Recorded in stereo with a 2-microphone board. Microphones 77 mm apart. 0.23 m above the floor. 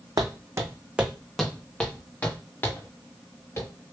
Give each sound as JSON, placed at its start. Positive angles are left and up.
{"t": 0.2, "sound": "footsteps", "side_deg": -60, "distance_m": 0.6}